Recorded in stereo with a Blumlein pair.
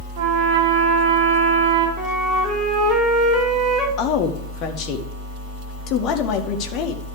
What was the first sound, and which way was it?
A trumpet, 45° right.